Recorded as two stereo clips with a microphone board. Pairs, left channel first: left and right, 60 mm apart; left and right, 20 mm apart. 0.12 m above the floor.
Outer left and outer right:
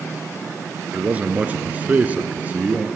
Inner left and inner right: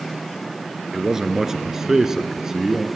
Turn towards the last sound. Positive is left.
turn(degrees=-25)  # may be behind; listen again after turning